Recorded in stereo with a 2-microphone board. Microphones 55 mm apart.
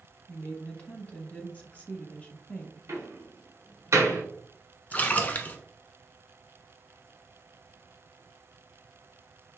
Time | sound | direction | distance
0.3 | a woman speaking | 25° left (ahead or behind) | 1.0 m
2.9 | a door slam | 60° right (ahead or behind) | 1.4 m
4.9 | a splash | 30° left (ahead or behind) | 0.8 m